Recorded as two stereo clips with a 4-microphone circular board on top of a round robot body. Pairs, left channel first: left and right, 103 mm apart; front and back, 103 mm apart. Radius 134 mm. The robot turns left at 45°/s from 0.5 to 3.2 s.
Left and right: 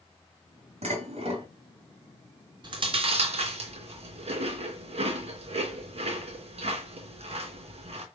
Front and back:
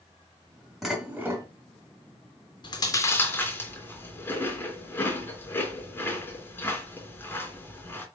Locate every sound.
0.8 s dishes clattering: 90° right, 3.5 m; by 1.5 s 120° right, 3.5 m
2.6 s chewing: 45° right, 3 m; by 8.1 s 70° right, 3 m